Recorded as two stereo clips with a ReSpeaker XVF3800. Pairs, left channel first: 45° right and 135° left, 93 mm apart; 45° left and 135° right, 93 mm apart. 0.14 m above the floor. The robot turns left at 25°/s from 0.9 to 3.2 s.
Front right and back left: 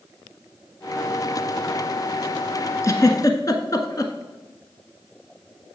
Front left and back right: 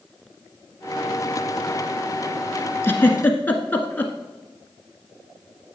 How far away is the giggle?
About 1.2 m.